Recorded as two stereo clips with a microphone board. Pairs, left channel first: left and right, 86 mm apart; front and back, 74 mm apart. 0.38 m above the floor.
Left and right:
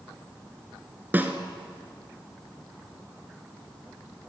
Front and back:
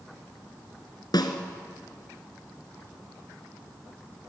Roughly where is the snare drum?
Ahead right.